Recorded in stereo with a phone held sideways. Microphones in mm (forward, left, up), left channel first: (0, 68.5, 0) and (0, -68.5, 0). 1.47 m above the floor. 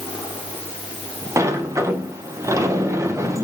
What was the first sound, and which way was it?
A sliding door, 20° right (ahead or behind).